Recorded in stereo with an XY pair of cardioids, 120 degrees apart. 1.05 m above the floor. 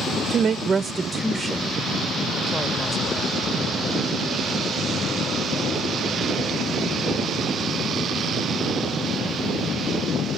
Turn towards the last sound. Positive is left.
turn(degrees=25)